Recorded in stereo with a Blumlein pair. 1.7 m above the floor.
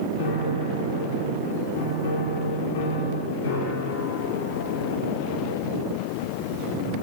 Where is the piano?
60° left, 1.2 m.